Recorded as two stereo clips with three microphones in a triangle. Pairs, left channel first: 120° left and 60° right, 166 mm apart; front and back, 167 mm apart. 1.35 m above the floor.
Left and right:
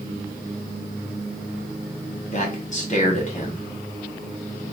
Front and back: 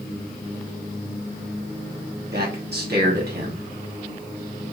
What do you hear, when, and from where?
2.3 s a man speaking: 165° left, 1.4 m